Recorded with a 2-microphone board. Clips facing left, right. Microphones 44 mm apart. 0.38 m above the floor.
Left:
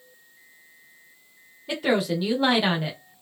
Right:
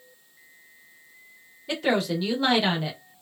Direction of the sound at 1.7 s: 5° left (ahead or behind).